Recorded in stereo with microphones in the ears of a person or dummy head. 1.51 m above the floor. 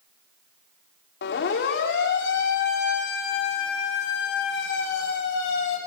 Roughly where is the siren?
Left.